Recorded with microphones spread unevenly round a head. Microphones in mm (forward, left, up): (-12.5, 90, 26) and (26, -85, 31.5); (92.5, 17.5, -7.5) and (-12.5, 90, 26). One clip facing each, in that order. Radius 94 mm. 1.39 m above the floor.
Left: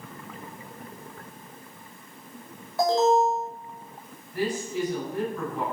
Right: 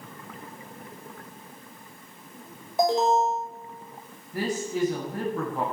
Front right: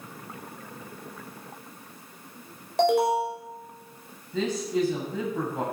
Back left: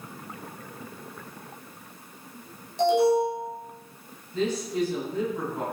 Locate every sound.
2.8 s an alarm: 5° right, 5.5 m
4.3 s a man speaking: 25° right, 8.5 m